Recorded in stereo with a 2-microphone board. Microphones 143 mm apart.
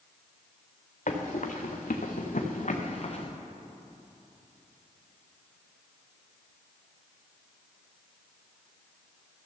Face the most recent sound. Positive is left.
turn(degrees=50)  # may be behind; listen again after turning